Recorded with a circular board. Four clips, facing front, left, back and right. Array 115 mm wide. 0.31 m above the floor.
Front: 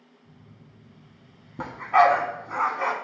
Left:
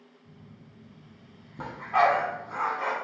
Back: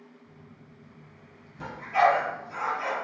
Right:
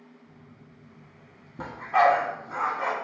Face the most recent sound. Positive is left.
turn(degrees=0)